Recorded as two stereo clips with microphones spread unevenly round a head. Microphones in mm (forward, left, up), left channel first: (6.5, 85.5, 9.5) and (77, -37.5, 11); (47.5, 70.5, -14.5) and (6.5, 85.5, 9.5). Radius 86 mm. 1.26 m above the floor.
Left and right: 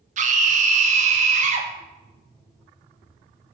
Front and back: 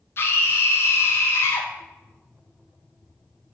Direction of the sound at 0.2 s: 30° right.